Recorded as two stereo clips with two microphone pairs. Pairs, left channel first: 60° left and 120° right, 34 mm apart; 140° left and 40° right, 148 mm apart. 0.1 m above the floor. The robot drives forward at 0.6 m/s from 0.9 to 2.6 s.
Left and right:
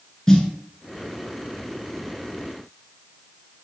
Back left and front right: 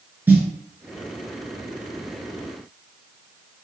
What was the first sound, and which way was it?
A snare drum, 20° left.